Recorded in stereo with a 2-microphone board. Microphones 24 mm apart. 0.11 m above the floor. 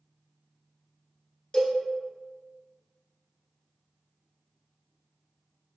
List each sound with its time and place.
1.5 s a cowbell: 30° left (ahead or behind), 0.9 m